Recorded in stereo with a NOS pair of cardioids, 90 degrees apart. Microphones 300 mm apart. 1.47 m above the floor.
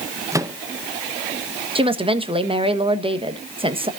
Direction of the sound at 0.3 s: 10° right.